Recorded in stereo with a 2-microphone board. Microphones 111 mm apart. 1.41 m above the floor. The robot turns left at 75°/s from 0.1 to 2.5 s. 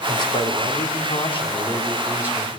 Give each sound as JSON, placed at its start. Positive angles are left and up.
{"t": 0.1, "sound": "a man speaking", "azimuth_deg": 145, "distance_m": 5.5}